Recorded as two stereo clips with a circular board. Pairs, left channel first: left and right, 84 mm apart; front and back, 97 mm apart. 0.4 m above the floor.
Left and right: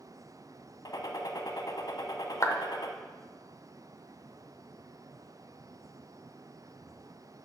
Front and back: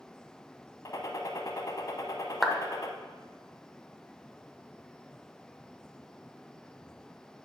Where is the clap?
90° left, 0.7 m.